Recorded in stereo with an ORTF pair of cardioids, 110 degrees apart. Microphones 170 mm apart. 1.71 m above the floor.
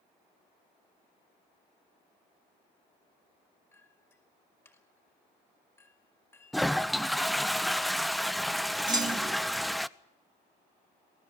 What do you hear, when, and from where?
3.7 s a clink: 15° left, 5 m
6.5 s a toilet flushing: straight ahead, 0.8 m
8.9 s a clunk: 25° right, 3.5 m